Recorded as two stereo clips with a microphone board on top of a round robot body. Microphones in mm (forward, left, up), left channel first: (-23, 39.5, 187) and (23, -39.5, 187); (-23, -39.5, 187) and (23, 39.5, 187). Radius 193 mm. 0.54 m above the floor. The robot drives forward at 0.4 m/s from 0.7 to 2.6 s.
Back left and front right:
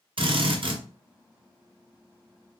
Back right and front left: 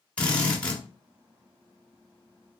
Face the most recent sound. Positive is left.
turn(degrees=-80)